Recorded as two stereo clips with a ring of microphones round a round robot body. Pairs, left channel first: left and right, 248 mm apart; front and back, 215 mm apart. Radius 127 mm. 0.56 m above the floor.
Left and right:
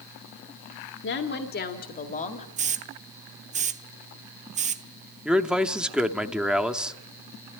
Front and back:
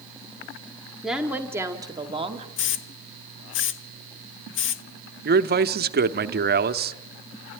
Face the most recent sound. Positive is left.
turn(degrees=-175)